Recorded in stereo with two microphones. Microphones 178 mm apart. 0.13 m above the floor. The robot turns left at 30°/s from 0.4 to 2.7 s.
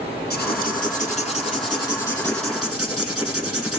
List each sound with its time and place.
0.3 s writing: 65° left, 4 m; by 3.8 s 5° right, 4 m